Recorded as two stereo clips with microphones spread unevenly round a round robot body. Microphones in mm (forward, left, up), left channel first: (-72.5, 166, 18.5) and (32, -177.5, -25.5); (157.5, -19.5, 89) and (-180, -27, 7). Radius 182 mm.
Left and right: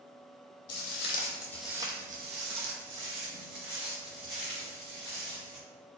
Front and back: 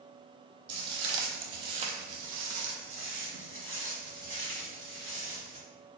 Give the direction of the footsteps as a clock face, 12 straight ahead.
7 o'clock.